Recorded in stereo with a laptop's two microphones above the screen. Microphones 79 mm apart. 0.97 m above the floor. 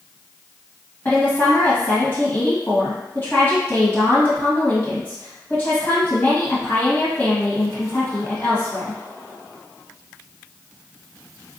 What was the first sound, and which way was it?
A woman speaking, 30° left (ahead or behind).